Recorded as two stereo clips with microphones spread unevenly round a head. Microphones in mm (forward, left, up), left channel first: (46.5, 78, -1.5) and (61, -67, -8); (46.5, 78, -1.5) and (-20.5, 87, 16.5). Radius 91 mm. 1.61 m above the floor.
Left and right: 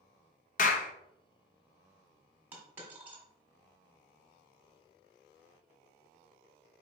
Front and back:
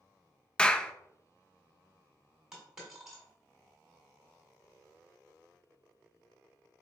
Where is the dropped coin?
155° right, 1.3 m.